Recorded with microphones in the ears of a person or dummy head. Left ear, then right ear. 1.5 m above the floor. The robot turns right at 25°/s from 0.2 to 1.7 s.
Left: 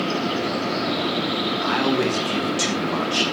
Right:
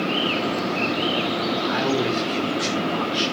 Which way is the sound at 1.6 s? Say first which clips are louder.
Left 3 dB; 65° left (ahead or behind).